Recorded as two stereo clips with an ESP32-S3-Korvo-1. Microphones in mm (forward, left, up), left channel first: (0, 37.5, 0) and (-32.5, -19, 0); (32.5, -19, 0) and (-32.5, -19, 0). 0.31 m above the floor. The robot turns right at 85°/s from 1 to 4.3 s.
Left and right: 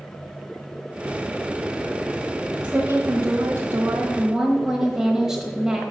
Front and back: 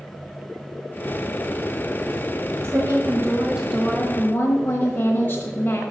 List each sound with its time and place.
2.6 s a woman speaking: 175° left, 1.2 m; by 5.9 s 45° right, 1.2 m